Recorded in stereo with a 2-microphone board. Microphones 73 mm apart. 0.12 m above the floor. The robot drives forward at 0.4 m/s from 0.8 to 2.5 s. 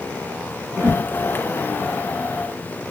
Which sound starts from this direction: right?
A whoosh, at 0.8 s.